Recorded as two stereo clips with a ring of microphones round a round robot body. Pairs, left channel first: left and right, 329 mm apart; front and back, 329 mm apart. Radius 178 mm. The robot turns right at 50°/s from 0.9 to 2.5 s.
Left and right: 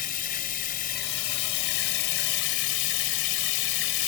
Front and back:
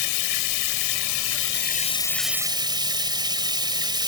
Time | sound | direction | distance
0.0 | running water | 25° left | ?